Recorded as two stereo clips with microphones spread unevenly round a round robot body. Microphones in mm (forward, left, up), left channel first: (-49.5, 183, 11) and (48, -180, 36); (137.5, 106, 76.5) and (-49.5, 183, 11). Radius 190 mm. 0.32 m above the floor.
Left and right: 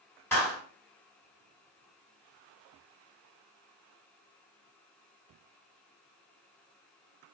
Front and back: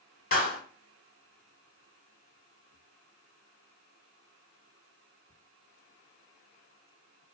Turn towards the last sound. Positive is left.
turn(degrees=30)